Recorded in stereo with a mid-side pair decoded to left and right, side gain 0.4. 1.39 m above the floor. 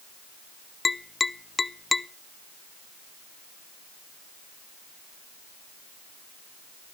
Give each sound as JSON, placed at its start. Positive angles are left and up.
{"t": 0.8, "sound": "tapping", "azimuth_deg": 30, "distance_m": 0.7}